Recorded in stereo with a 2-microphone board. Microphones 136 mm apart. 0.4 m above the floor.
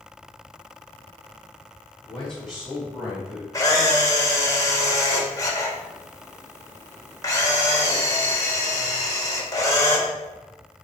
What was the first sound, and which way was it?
A man speaking, 15° left (ahead or behind).